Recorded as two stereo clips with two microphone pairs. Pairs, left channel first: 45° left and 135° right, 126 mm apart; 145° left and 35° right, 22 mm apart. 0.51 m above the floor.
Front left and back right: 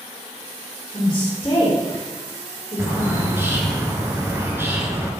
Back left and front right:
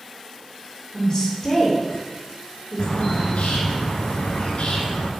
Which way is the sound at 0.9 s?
100° left.